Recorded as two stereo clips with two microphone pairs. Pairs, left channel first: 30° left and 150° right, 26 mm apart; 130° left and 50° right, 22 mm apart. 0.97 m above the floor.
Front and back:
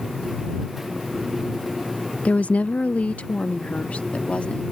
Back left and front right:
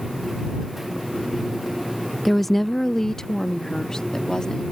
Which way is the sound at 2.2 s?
35° left.